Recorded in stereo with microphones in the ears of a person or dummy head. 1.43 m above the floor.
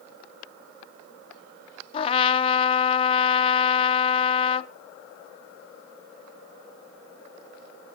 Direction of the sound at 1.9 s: 30° left (ahead or behind).